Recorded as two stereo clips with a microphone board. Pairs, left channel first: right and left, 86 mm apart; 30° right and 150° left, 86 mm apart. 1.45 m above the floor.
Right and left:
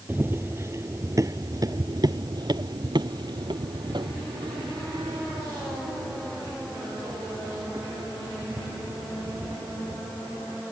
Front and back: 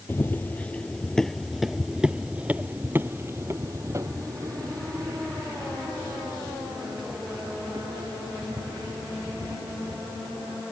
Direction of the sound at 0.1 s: 30° left.